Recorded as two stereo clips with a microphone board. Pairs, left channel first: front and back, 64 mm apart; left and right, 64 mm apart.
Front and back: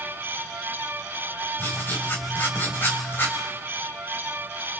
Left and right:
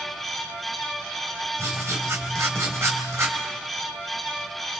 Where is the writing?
50° right, 3 m.